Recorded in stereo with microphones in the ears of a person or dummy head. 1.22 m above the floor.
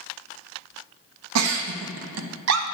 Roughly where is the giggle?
Right.